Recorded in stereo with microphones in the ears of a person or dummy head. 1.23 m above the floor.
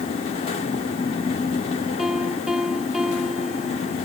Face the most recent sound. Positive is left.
turn(degrees=0)  # may be behind; listen again after turning